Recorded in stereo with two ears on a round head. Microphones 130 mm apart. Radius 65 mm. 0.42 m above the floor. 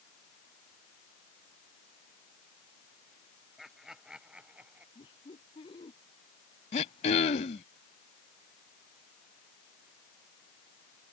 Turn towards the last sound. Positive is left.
turn(degrees=50)  # may be behind; listen again after turning